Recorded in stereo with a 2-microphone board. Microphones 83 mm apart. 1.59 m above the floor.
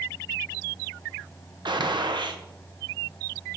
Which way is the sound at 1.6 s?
65° right (ahead or behind).